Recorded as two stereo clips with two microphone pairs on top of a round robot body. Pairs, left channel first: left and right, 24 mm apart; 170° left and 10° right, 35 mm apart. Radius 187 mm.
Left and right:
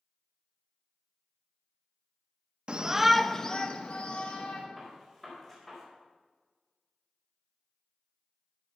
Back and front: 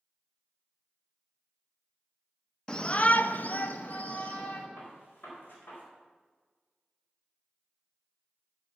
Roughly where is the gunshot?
Behind.